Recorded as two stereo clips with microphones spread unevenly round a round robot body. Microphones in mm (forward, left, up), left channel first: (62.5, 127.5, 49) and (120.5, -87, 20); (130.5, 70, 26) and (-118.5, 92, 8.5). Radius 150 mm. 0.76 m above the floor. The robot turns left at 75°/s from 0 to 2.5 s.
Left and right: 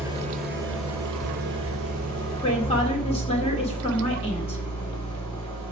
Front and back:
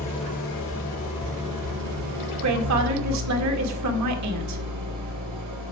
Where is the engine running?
5° left, 3.5 m; by 5.7 s straight behind, 3.5 m.